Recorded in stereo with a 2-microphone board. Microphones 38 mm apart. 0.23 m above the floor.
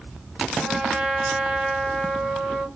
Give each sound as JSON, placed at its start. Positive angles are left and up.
{"t": 0.6, "sound": "a trumpet", "side_deg": 15, "distance_m": 1.5}